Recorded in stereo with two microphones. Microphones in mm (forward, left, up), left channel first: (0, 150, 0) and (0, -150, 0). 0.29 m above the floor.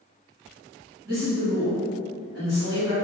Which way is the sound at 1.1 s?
45° right (ahead or behind).